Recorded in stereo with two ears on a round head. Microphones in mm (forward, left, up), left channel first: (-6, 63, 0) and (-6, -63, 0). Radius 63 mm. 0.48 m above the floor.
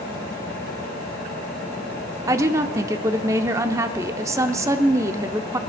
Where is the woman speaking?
20° right (ahead or behind), 0.7 m.